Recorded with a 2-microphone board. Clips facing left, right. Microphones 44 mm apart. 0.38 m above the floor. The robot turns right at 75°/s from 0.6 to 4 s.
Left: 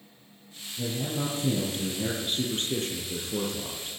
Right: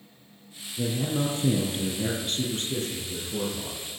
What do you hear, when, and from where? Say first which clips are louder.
0.8 s a man speaking: right 3 dB; 105° right, 5 m; by 3.9 s 130° left, 5 m